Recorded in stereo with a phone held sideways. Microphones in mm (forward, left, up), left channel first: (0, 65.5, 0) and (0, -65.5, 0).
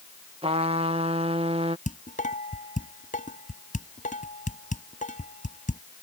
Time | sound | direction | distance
0.4 | a trumpet | 45° right (ahead or behind) | ?
1.9 | dishes clattering | 75° left (ahead or behind) | ?